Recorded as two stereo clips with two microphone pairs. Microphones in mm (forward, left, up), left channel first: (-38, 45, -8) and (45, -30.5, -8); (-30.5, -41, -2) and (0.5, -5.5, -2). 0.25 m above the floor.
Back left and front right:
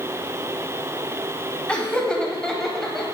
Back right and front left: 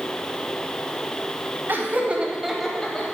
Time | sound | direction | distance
1.7 | laughter | 60° left | 1.3 m